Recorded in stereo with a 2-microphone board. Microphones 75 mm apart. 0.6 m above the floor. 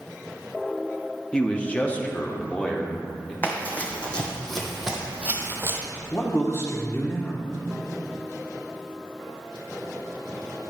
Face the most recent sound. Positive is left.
turn(degrees=40)  # may be behind; listen again after turning